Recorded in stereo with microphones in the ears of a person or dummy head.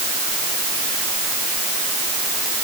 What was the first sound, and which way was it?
Only background noise.